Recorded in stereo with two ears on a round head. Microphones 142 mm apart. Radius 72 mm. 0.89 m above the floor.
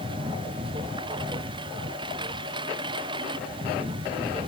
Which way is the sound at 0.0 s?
30° right (ahead or behind).